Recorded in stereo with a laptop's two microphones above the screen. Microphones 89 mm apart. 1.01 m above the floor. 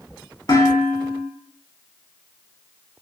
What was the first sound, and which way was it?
Dishes clattering, 50° left (ahead or behind).